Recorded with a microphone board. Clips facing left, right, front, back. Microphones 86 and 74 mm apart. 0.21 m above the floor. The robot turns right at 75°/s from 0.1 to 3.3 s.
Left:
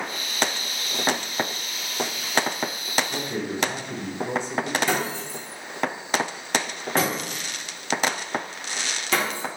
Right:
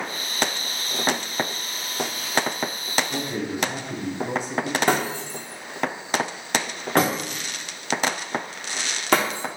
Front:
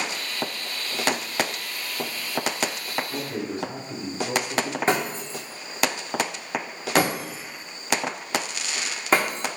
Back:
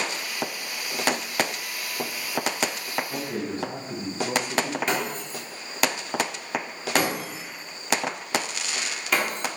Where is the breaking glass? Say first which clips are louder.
Right 3 dB, front 3 dB; 55° right, 1.2 m.